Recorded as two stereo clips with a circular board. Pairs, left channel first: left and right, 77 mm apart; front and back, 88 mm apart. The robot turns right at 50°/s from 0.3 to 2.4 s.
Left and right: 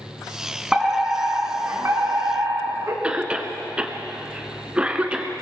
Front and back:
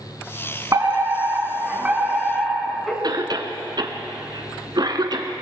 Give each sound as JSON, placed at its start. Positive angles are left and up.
{"t": 0.7, "sound": "a fire alarm", "azimuth_deg": -170, "distance_m": 2.5}
{"t": 3.0, "sound": "a cough", "azimuth_deg": -165, "distance_m": 2.0}